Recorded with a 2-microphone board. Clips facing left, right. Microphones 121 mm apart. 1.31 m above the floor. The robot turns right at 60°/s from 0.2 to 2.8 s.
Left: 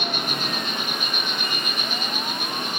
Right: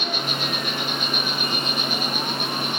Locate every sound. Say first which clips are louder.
0.0 s an insect: even; 125° left, 6.5 m; by 2.8 s 80° right, 6.5 m